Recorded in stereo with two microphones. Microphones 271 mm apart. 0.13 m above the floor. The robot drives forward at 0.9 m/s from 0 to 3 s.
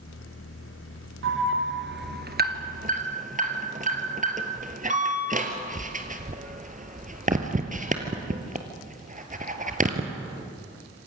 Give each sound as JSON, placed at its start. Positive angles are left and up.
{"t": 1.2, "sound": "an alarm", "side_deg": -45, "distance_m": 1.4}